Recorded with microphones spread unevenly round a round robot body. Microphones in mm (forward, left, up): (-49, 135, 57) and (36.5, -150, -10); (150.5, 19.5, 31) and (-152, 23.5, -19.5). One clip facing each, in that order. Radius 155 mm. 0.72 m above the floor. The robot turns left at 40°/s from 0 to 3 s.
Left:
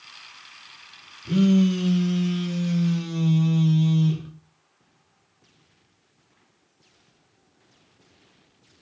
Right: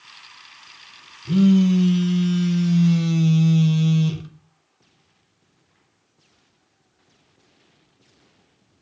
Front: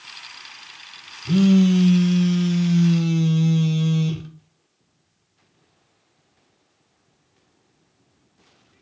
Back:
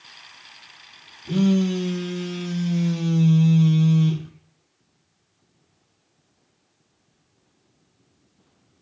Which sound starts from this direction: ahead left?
A phone buzzing, at 1.2 s.